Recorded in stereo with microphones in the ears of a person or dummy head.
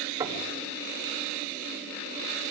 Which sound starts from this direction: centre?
Knocking, at 0.2 s.